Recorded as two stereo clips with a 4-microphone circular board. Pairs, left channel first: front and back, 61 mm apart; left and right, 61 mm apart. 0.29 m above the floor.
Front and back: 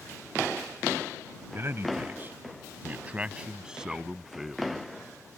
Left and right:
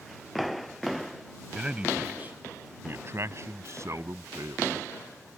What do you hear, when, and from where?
1.5 s a man speaking: 165° right; by 4.7 s 95° right